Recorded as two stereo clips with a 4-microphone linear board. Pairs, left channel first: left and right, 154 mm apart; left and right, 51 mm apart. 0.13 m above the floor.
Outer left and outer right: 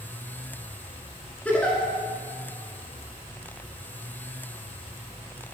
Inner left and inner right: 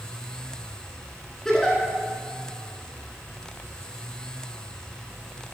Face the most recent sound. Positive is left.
turn(degrees=10)  # may be behind; listen again after turning